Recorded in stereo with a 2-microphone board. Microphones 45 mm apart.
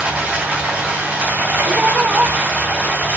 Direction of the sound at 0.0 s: 30° right (ahead or behind).